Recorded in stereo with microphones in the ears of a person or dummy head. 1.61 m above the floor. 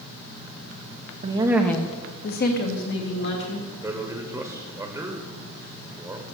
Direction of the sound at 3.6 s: 20° right (ahead or behind).